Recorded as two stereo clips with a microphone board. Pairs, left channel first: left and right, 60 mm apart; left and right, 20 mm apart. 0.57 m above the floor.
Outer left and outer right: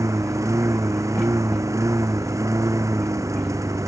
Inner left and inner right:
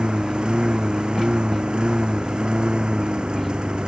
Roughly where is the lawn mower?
Right.